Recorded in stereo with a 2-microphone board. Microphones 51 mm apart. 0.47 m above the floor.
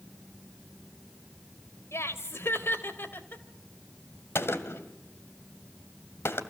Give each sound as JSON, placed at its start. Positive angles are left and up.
{"t": 1.9, "sound": "laughter", "side_deg": 60, "distance_m": 2.5}
{"t": 4.3, "sound": "a gunshot", "side_deg": 55, "distance_m": 1.9}